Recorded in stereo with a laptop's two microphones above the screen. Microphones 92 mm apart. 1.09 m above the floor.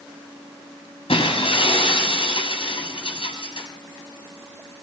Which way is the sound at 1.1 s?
85° left.